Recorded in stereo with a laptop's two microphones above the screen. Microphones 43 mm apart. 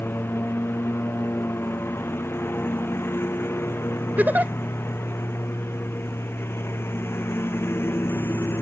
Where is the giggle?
45° right (ahead or behind).